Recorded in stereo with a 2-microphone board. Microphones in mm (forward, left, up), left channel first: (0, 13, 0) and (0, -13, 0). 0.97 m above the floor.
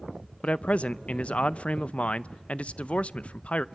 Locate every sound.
0.4 s a man speaking: 50° left (ahead or behind), 0.5 m